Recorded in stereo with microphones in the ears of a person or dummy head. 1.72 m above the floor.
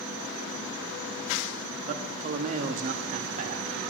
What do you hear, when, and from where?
1.9 s a man speaking: 40° right (ahead or behind), 0.9 m